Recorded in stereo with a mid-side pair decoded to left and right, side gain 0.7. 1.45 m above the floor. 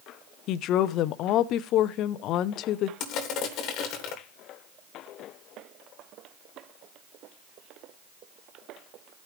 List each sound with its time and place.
0.5 s a woman speaking: 55° left, 0.7 m
3.0 s crushing: 50° left, 2.5 m